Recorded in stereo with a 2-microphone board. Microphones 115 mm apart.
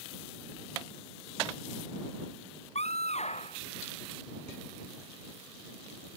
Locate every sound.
2.8 s a scream: 70° left (ahead or behind)